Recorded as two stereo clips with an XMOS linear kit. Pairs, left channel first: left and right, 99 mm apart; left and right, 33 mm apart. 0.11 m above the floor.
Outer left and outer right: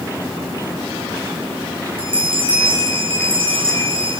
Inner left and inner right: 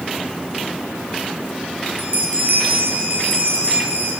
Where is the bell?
55° right (ahead or behind), 4.5 m.